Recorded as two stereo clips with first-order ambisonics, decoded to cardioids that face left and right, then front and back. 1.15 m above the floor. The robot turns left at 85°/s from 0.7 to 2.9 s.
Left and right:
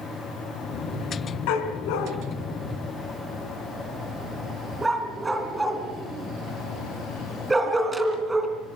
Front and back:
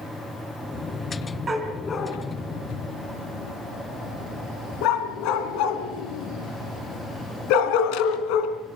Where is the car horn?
No car horn in this recording.